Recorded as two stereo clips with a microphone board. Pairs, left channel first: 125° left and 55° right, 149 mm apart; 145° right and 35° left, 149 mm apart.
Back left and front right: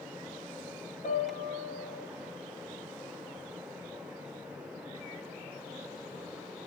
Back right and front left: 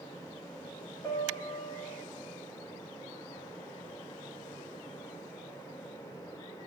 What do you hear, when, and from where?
1.0 s a piano: 145° left, 3 m